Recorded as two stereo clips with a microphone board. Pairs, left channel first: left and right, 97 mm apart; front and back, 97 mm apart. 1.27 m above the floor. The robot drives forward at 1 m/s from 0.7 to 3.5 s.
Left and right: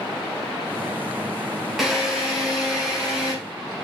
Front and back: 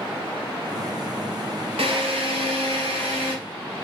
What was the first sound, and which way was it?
A drill, straight behind.